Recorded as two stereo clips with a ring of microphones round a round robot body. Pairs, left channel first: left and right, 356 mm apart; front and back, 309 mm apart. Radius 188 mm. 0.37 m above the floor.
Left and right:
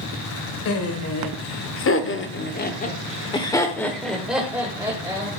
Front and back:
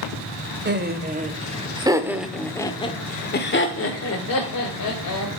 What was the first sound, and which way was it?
Laughter, 130° left.